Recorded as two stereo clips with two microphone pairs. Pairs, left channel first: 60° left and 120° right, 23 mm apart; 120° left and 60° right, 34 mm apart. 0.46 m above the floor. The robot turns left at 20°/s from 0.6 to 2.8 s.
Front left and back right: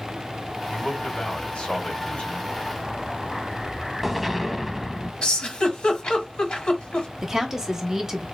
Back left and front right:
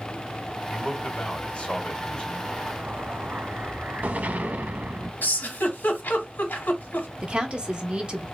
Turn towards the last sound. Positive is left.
turn(degrees=-70)